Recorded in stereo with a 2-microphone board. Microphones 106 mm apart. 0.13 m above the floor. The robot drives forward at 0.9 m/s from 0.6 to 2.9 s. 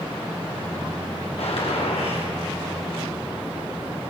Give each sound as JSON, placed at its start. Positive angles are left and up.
{"t": 1.4, "sound": "a gunshot", "side_deg": 75, "distance_m": 9.5}